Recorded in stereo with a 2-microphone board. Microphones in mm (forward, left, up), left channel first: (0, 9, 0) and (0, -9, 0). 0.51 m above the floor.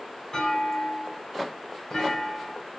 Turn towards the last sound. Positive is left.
turn(degrees=20)  # may be behind; listen again after turning